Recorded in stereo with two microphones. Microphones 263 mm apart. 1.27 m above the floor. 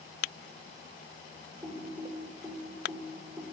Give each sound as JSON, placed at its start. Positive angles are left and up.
{"t": 1.6, "sound": "typing on a keyboard", "side_deg": 0, "distance_m": 4.0}